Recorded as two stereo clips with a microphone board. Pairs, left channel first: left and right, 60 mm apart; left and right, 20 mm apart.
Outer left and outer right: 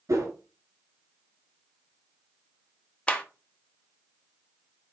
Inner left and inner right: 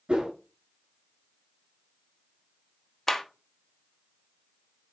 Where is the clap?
20° left (ahead or behind), 0.9 m.